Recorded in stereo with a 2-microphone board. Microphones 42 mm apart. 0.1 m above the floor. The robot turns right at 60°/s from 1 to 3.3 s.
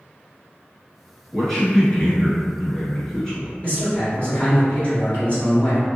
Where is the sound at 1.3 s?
5° left (ahead or behind), 1.1 m; by 3.5 s 15° left (ahead or behind), 1.1 m.